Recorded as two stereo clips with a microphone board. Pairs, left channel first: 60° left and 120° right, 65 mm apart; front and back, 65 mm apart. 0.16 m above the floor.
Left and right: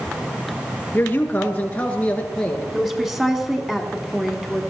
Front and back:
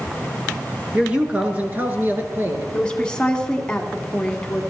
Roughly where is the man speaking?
Left.